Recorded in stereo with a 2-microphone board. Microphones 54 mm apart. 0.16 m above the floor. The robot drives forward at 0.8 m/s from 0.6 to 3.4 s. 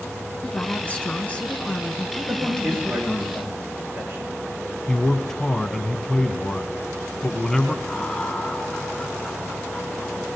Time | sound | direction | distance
0.4 | a woman speaking | 30° left (ahead or behind) | 1.3 m
2.3 | a man speaking | 40° right (ahead or behind) | 8.5 m
4.9 | a man speaking | 15° left (ahead or behind) | 1.1 m
7.8 | laughter | 25° left (ahead or behind) | 2 m